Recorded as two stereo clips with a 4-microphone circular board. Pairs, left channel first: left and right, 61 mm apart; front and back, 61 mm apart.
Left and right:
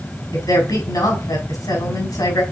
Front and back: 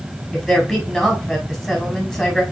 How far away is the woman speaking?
About 4.5 m.